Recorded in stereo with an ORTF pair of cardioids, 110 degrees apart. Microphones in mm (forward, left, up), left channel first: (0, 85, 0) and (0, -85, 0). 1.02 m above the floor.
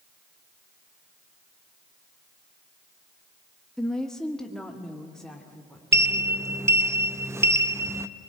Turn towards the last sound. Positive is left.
turn(degrees=-15)